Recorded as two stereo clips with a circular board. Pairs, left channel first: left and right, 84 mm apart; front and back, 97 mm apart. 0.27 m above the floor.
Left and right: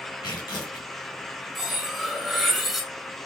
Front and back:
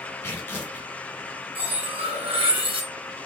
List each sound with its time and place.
0.2 s tearing paper: 70° left, 2.5 m
1.6 s cutlery clinking: straight behind, 1.3 m